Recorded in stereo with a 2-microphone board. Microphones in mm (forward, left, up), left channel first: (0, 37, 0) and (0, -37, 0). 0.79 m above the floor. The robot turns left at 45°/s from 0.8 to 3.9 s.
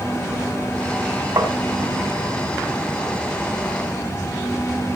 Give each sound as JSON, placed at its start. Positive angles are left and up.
{"t": 1.4, "sound": "tapping", "side_deg": -65, "distance_m": 2.5}